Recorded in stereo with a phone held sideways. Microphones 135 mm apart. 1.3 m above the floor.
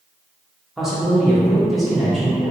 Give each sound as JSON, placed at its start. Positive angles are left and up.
{"t": 0.8, "sound": "a man speaking", "side_deg": 0, "distance_m": 0.9}